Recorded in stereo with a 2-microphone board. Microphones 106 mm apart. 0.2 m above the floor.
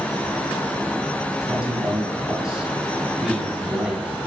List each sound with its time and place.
1.4 s a man speaking: 10° right (ahead or behind), 1.9 m